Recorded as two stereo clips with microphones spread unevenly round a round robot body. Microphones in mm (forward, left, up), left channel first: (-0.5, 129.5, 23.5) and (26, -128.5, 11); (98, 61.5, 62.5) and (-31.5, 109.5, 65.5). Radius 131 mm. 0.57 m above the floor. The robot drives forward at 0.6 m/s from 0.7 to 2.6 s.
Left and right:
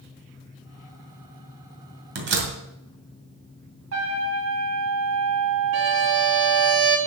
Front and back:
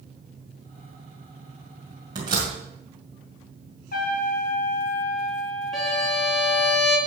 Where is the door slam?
130° right, 2 m; by 2.5 s 135° right, 2.5 m.